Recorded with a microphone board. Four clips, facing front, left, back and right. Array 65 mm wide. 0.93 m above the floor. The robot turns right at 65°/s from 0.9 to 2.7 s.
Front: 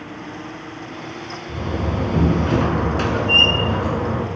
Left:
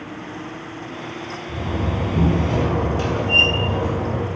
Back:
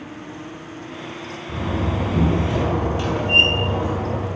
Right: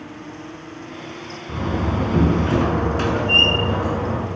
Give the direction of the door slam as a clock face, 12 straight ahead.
4 o'clock.